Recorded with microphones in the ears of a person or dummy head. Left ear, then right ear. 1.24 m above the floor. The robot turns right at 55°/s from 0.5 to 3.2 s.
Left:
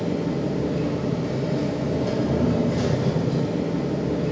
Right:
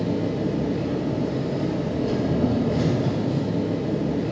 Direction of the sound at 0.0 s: Straight ahead.